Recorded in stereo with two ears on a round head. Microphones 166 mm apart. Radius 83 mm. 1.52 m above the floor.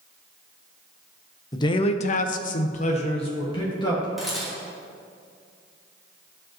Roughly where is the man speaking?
Left.